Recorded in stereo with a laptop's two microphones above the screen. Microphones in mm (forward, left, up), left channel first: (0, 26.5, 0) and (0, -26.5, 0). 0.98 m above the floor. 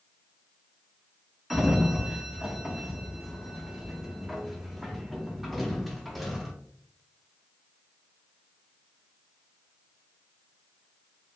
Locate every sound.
1.5 s a sliding door: centre (ahead or behind), 0.5 m